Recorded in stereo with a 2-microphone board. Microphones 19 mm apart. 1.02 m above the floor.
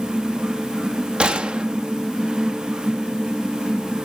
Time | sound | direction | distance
1.2 | a gunshot | 65° right (ahead or behind) | 0.6 m